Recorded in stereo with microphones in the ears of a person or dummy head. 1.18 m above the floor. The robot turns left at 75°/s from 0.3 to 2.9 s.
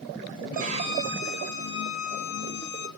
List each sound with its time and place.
0.5 s a violin: 120° right, 1.0 m; by 2.9 s 60° left, 1.0 m